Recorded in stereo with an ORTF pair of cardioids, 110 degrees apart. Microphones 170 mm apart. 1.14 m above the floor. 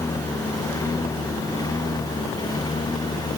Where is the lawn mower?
15° left; by 3.4 s 25° left.